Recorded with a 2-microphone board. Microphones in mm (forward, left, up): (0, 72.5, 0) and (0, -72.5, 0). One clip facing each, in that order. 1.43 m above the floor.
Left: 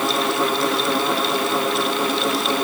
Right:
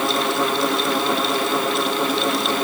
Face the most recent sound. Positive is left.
No sound to turn to.